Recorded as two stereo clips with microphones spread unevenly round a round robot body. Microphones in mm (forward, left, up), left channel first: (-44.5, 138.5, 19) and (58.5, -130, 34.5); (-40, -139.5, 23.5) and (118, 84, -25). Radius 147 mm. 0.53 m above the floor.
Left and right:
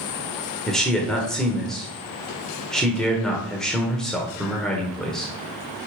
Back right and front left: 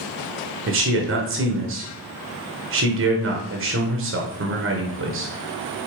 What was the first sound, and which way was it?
A man speaking, 25° left.